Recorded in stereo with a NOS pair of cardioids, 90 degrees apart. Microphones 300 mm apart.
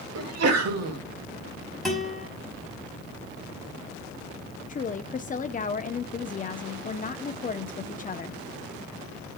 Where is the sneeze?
60° right, 3 m.